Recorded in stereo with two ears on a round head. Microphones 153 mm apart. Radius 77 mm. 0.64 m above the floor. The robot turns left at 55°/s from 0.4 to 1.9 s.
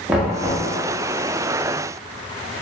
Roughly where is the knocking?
Centre.